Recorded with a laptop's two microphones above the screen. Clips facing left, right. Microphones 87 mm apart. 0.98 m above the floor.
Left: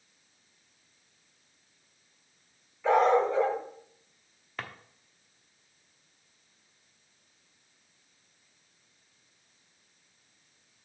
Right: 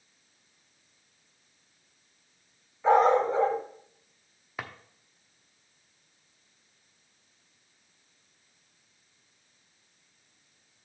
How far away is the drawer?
About 0.9 m.